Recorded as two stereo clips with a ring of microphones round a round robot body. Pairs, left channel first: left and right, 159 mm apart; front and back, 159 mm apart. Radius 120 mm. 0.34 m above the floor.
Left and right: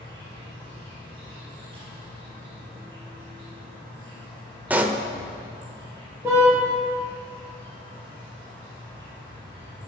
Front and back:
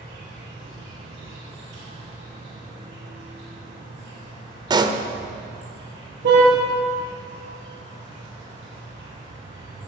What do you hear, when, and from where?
0.0 s an insect: 160° right, 5.5 m
4.7 s a pop: 160° right, 1.0 m
6.2 s a car horn: 170° right, 4.5 m